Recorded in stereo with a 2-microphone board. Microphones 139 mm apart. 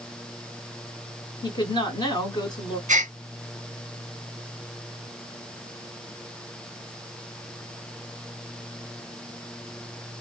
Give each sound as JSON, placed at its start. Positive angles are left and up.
{"t": 1.4, "sound": "a woman speaking", "side_deg": 30, "distance_m": 1.5}
{"t": 2.9, "sound": "a gasp", "side_deg": -60, "distance_m": 0.5}